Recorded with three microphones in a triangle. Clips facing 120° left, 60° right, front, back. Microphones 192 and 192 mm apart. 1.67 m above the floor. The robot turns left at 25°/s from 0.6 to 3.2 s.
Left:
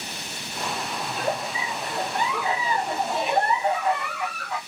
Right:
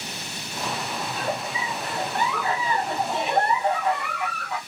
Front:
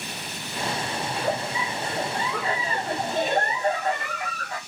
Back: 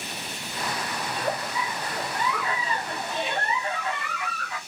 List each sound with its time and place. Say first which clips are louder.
1.1 s a giggle: left 3 dB, front 2 dB; 85° left, 0.7 m; by 4.6 s 30° left, 0.7 m